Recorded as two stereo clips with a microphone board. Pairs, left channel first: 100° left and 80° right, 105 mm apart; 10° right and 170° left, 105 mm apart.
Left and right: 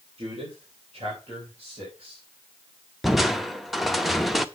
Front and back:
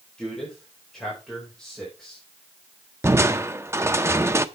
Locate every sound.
0.2 s a man speaking: 95° right, 3.5 m
3.0 s crushing: 165° right, 0.6 m